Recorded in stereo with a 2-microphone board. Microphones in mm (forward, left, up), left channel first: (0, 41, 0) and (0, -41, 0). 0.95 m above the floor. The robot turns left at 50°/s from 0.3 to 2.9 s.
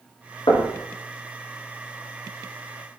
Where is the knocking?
70° left (ahead or behind), 0.9 m; by 0.8 s 60° left (ahead or behind), 0.9 m.